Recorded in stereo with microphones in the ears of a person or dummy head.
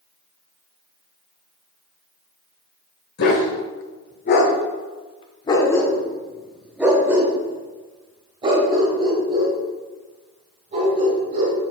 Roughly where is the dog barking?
Left.